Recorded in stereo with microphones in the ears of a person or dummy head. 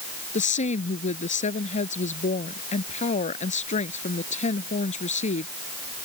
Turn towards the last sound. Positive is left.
turn(degrees=40)  # may be behind; listen again after turning